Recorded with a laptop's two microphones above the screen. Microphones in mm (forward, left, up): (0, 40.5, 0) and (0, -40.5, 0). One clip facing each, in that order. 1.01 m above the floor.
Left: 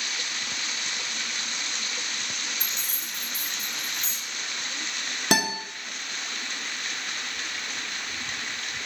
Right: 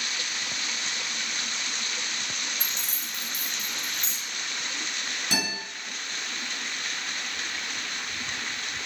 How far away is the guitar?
About 0.7 m.